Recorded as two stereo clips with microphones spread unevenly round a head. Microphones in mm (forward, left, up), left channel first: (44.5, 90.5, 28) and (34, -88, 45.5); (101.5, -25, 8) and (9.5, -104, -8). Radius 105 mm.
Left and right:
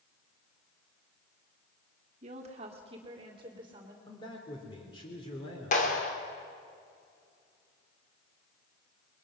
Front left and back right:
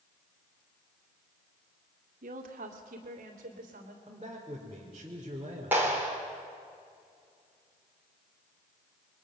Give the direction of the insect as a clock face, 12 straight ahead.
No insect in this recording.